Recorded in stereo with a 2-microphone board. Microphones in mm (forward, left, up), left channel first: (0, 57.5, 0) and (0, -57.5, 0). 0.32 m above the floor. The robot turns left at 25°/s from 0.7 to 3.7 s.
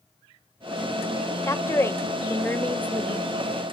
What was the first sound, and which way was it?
A woman speaking, 25° left (ahead or behind).